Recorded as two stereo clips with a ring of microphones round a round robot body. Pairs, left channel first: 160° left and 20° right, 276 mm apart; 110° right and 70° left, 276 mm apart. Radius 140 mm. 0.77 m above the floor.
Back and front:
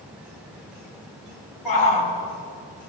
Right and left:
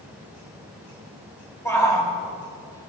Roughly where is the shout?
Behind.